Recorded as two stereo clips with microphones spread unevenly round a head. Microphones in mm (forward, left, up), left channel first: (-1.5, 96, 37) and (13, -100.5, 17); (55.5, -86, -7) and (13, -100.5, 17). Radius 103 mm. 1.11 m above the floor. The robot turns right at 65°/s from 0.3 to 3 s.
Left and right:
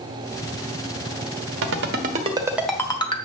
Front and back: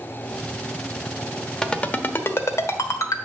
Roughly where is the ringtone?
Ahead right.